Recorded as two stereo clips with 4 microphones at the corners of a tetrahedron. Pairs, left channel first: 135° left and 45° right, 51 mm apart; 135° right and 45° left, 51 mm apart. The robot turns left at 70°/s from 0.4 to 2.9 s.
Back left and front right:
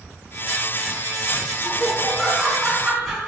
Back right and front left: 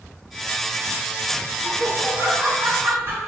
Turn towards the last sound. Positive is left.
turn(degrees=30)